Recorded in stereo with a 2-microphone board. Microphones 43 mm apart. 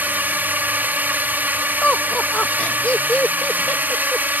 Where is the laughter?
30° left (ahead or behind).